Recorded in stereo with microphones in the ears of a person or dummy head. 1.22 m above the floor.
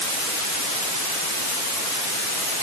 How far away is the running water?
No running water in this recording.